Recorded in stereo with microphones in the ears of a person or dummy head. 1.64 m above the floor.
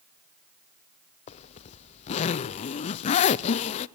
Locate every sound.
1.3 s a zipper: 45° left (ahead or behind), 0.6 m